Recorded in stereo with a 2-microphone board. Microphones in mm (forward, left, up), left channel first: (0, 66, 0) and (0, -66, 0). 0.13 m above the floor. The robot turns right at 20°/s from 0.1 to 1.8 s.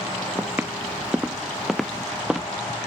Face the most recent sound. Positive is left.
turn(degrees=-5)  # may be behind; listen again after turning